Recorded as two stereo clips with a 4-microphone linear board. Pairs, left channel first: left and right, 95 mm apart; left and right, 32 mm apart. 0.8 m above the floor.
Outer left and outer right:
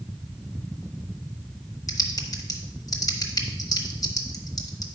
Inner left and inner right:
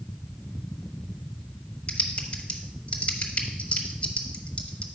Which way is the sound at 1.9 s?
40° left (ahead or behind).